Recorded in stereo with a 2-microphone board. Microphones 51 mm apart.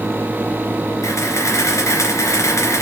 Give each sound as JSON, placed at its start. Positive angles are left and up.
{"t": 1.0, "sound": "a camera shutter", "side_deg": 75, "distance_m": 2.5}